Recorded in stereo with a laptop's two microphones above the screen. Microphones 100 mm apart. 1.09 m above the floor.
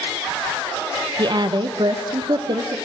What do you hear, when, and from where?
1.2 s a woman speaking: 50° right (ahead or behind), 0.8 m